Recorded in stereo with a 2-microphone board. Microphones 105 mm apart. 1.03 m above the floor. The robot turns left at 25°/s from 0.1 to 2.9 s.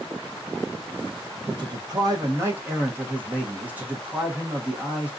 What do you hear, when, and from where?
1.5 s a man speaking: 125° right, 1.1 m; by 5.1 s 165° right, 1.1 m